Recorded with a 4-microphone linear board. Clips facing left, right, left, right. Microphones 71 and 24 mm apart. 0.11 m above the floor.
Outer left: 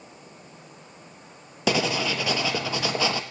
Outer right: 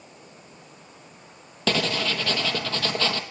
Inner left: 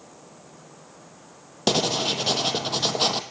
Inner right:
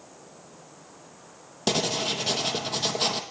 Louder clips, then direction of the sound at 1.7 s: Outer left 1 dB, inner left 3 dB; 15° left (ahead or behind).